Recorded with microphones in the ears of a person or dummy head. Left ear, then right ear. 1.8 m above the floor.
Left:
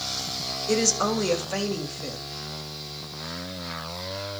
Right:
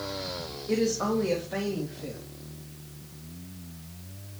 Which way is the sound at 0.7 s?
80° left.